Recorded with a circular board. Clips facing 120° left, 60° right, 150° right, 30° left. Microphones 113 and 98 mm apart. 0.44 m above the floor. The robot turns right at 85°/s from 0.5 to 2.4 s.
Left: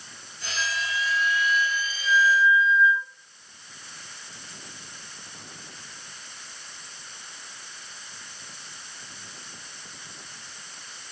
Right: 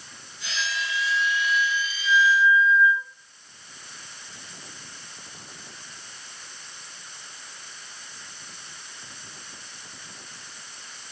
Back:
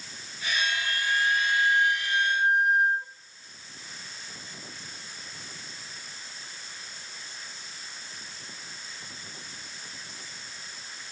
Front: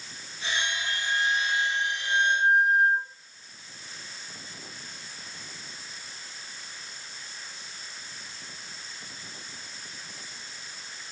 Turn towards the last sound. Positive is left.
turn(degrees=85)